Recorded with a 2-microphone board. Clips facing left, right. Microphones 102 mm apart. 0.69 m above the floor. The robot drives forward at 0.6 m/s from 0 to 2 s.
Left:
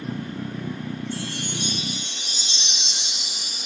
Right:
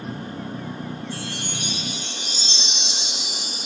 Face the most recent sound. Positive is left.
turn(degrees=-85)